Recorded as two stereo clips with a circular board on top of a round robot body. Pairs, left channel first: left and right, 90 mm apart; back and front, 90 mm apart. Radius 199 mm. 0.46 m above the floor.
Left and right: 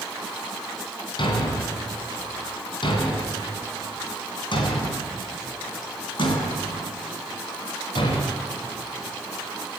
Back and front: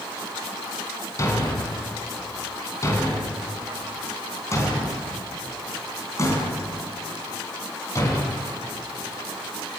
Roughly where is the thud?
Behind left.